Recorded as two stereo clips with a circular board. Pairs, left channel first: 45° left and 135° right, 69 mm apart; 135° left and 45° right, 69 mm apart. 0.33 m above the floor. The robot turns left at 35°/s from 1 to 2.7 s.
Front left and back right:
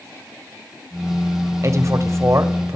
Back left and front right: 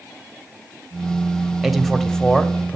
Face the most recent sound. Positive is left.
turn(degrees=-165)